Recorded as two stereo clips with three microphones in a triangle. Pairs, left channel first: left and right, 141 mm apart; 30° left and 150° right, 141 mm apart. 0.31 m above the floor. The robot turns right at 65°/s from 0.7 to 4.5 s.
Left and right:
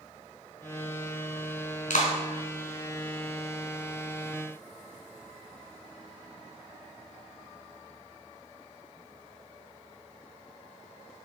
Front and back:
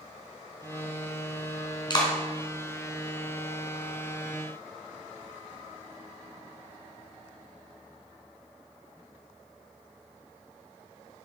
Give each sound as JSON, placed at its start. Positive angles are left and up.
{"t": 1.9, "sound": "a clap", "azimuth_deg": 80, "distance_m": 2.5}